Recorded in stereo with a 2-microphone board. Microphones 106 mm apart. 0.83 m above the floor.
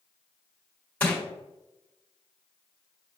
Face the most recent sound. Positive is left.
turn(degrees=15)  # may be behind; listen again after turning